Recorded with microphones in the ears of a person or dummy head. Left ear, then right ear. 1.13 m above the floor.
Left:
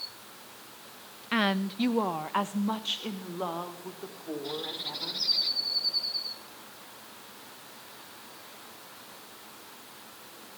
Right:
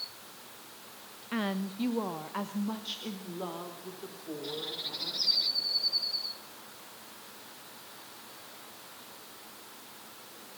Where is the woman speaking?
25° left (ahead or behind), 0.7 m; by 5.2 s 30° left (ahead or behind), 5 m.